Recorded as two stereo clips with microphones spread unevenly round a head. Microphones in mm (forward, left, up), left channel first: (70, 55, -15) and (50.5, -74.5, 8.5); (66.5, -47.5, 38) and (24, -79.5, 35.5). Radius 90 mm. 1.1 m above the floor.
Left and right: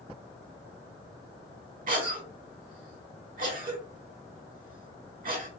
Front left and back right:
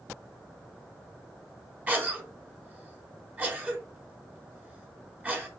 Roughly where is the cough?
Right.